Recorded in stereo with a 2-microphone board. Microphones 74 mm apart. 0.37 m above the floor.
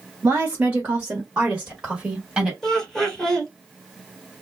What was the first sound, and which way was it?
A woman speaking, 25° right (ahead or behind).